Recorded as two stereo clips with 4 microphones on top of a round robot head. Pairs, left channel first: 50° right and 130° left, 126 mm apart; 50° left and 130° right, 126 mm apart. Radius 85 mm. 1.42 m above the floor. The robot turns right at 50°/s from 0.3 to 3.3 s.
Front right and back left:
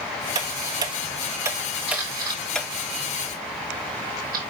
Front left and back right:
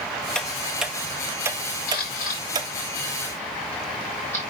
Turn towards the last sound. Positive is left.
turn(degrees=125)